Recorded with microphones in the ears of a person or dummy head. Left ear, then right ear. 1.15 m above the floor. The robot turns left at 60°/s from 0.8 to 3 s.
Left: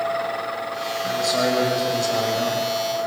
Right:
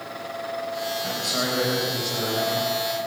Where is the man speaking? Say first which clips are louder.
Left 7 dB; 170° right, 5 m; by 2.6 s 90° left, 5 m.